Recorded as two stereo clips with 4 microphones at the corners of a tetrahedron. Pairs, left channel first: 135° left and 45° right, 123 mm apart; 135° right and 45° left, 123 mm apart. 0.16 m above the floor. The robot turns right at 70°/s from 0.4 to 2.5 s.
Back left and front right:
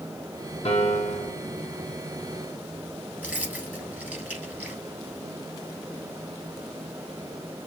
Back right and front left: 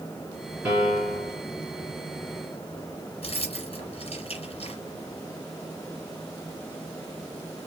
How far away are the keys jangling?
About 1.8 m.